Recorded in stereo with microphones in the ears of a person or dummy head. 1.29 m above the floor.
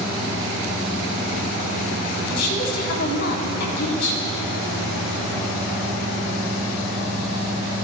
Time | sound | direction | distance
2.3 | a woman speaking | 65° left (ahead or behind) | 3.5 m